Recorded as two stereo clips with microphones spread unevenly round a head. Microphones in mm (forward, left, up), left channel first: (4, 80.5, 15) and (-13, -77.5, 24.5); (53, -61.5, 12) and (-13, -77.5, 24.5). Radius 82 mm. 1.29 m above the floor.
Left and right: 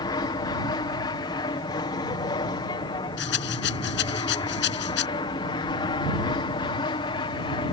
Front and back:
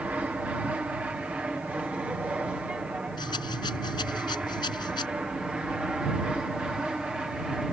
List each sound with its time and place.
0.0 s an aircraft: 125° left; by 7.7 s 110° left
3.2 s a rattle: 60° left